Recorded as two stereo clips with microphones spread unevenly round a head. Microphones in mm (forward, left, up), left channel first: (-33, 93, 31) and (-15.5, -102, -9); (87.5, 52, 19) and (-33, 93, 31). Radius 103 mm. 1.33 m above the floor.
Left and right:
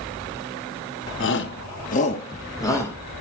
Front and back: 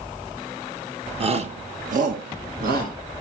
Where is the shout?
120° left, 1.4 m; by 3.0 s 175° left, 1.9 m.